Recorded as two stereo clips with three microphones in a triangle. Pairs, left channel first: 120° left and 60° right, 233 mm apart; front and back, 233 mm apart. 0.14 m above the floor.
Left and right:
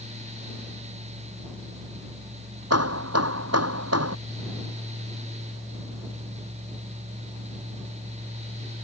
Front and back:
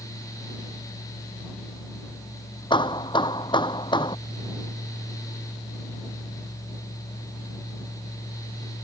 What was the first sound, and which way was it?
Hammering, 70° right.